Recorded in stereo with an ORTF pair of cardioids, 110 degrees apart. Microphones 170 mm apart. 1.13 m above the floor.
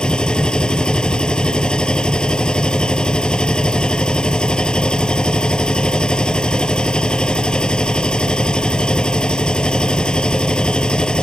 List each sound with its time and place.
0.0 s a machine running: 5° left